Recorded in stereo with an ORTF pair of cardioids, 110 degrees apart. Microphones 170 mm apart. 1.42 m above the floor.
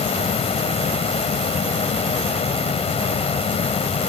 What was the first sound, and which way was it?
A fan, 35° left.